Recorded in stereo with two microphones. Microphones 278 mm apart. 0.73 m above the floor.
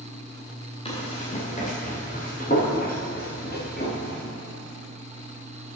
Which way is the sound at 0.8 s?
20° left (ahead or behind).